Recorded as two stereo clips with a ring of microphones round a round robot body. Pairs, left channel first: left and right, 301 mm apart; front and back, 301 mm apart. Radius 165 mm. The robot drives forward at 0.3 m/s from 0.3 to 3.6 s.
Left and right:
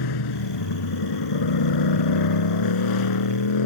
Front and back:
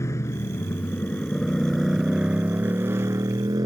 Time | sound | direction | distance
0.0 | a motorcycle | 80° left | ?